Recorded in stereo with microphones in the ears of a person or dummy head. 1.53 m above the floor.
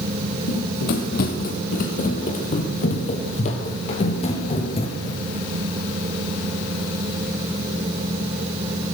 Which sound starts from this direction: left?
Running footsteps, at 0.5 s.